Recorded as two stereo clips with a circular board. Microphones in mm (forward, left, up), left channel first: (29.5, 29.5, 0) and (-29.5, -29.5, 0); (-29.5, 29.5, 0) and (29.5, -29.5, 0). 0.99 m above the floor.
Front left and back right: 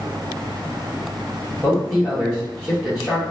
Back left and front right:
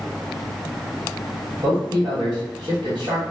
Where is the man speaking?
15° right, 1.8 m.